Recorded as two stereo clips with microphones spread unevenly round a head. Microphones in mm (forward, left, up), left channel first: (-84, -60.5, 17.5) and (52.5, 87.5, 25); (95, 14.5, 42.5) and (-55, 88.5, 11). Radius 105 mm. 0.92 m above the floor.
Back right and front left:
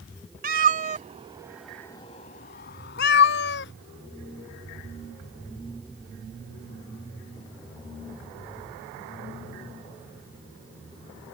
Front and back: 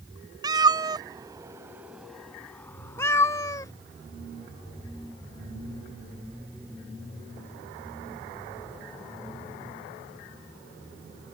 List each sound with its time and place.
0.4 s a cat meowing: 85° left; by 3.7 s 95° right